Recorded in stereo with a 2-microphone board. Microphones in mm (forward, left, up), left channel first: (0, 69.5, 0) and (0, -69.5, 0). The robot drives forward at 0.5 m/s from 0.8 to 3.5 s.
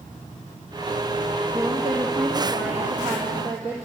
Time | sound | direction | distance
1.5 | a woman speaking | 40° right (ahead or behind) | 3 m